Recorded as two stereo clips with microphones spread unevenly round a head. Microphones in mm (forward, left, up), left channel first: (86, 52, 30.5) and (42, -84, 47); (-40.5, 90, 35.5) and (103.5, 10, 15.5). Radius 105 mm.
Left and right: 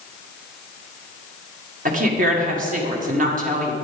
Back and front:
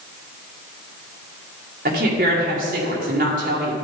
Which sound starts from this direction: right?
A woman speaking, at 1.9 s.